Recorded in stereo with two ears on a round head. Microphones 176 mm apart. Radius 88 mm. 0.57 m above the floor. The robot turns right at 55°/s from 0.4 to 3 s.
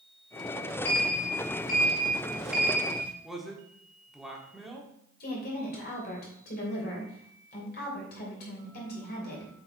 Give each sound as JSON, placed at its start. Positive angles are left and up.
{"t": 0.8, "sound": "a sliding door", "azimuth_deg": 90, "distance_m": 1.6}
{"t": 3.2, "sound": "a man speaking", "side_deg": 0, "distance_m": 1.4}
{"t": 5.2, "sound": "a woman speaking", "side_deg": 50, "distance_m": 3.0}